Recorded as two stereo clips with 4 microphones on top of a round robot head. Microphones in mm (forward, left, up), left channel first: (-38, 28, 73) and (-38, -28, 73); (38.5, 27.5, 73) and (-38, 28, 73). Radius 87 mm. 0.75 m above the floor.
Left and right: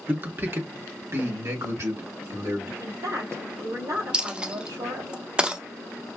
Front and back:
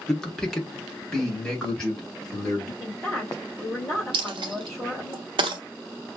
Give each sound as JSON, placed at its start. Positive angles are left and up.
{"t": 0.1, "sound": "a man speaking", "azimuth_deg": -75, "distance_m": 1.2}
{"t": 2.8, "sound": "a woman speaking", "azimuth_deg": -80, "distance_m": 3.0}
{"t": 4.1, "sound": "a dropped coin", "azimuth_deg": -165, "distance_m": 0.7}